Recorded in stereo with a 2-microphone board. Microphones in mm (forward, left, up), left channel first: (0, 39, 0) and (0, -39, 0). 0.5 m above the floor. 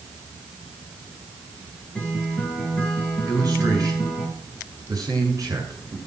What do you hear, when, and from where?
1.9 s a guitar: 15° left (ahead or behind), 7 m
3.3 s a man speaking: 50° right (ahead or behind), 8 m